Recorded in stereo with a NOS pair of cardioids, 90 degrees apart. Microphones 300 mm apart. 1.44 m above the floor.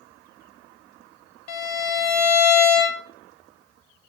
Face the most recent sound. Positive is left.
turn(degrees=60)